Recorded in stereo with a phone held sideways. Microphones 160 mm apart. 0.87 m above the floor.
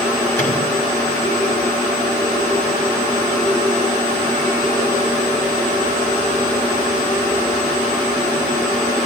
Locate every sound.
0.4 s a microwave: 10° left (ahead or behind), 7.5 m